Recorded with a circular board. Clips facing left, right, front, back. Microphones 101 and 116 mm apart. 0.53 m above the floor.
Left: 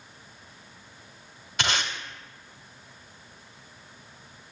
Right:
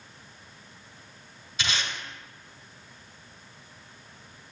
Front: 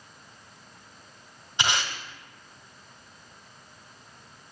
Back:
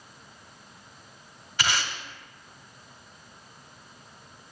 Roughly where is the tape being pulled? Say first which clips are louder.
Left 3 dB, front 1 dB; left.